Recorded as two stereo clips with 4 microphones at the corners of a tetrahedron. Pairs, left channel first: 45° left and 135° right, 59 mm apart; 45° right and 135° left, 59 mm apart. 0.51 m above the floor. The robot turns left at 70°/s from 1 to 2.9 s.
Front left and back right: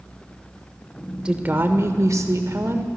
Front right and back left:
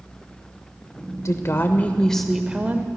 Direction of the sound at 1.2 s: 65° right.